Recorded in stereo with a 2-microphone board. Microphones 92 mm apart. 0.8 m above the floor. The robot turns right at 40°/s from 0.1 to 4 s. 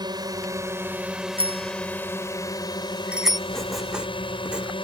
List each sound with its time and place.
0.0 s a drone: 55° right; by 4.8 s 100° left
1.4 s a bicycle bell: 80° right; by 3.4 s centre (ahead or behind)
3.5 s writing: 10° left (ahead or behind); by 4.7 s 10° right (ahead or behind)